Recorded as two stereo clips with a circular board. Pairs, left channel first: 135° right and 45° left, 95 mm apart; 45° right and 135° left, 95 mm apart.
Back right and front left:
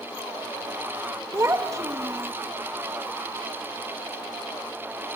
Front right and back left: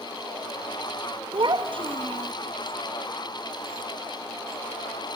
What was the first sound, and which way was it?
A child speaking, 105° left.